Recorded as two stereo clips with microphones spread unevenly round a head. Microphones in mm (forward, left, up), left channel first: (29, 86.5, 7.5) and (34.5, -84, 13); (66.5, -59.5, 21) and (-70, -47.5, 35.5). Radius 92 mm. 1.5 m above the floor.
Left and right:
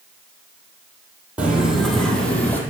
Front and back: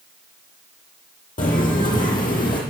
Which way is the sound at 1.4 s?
10° right.